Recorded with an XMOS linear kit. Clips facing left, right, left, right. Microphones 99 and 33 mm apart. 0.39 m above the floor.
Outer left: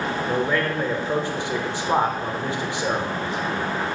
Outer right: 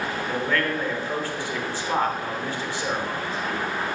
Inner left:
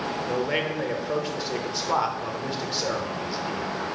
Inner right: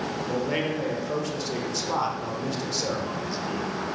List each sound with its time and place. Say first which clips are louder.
0.3 s a man speaking: outer left 2 dB, inner left 1 dB; 20° left (ahead or behind), 1.1 m